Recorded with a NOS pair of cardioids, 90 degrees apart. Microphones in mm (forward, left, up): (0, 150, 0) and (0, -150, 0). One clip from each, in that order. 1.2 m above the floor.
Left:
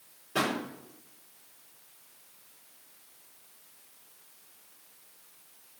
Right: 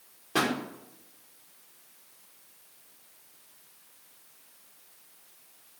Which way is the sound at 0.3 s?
50° right.